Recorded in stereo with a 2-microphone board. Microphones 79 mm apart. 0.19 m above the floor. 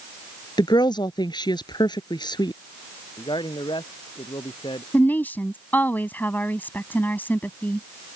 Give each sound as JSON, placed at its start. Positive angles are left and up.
{"t": 0.6, "sound": "a woman speaking", "side_deg": 65}
{"t": 3.2, "sound": "a man speaking", "side_deg": 80}
{"t": 4.9, "sound": "a woman speaking", "side_deg": 25}